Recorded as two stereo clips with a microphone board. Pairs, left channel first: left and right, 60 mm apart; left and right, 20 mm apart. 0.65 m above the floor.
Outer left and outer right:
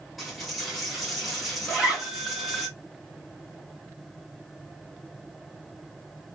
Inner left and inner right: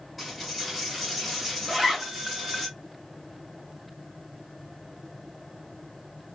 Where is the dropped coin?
Centre (ahead or behind), 1.2 m.